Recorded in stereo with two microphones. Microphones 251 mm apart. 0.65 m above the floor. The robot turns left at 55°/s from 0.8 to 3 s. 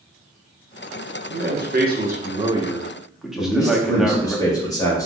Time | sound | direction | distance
1.3 | a man speaking | 85° right | 0.6 m
3.4 | a man speaking | 15° left (ahead or behind) | 0.9 m